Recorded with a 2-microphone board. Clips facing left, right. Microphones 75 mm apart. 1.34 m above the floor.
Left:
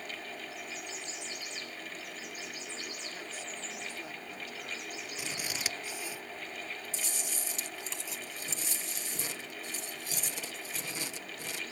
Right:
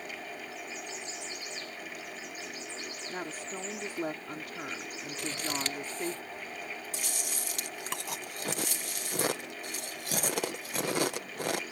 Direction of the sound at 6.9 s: 60° right (ahead or behind).